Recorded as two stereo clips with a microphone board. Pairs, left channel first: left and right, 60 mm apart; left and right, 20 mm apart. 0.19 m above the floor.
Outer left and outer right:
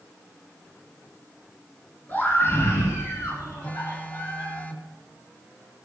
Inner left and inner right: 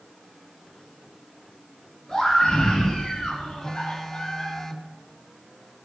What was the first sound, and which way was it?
A scream, 30° left (ahead or behind).